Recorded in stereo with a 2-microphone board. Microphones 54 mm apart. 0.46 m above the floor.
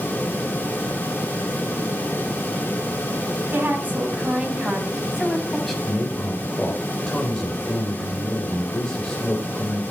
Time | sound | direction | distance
3.5 | a woman speaking | 40° right (ahead or behind) | 4 m
5.8 | a man speaking | 10° left (ahead or behind) | 2 m